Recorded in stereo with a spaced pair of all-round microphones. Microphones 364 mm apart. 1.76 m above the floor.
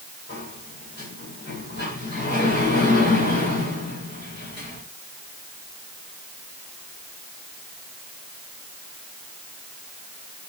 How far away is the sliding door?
About 8 m.